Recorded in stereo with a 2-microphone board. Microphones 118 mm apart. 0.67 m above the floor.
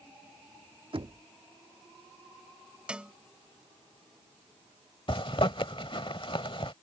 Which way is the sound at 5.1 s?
50° left (ahead or behind).